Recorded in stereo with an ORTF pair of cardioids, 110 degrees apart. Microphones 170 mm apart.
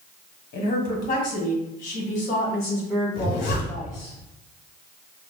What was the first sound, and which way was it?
A woman speaking, 55° left.